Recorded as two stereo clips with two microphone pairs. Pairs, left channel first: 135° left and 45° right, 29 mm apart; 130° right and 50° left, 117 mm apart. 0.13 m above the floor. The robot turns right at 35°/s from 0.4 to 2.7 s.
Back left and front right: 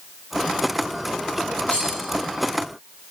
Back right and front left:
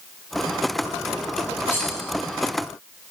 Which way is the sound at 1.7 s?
165° left.